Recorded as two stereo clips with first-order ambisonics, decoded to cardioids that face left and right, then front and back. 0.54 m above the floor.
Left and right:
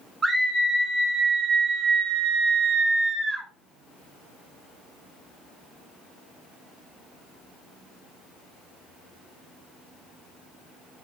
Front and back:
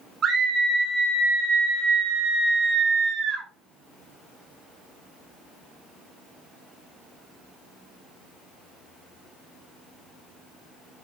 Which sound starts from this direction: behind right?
A scream, at 0.2 s.